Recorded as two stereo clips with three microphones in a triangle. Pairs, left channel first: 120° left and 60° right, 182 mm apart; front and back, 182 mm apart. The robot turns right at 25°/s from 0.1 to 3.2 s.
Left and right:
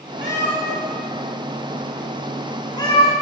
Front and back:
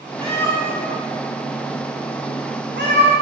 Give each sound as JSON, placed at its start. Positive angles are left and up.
{"t": 0.2, "sound": "a cat meowing", "azimuth_deg": 120, "distance_m": 2.0}